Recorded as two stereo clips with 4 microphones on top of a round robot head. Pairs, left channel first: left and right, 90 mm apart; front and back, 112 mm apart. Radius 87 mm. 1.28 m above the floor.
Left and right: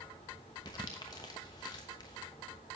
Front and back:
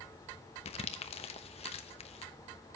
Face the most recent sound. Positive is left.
turn(degrees=30)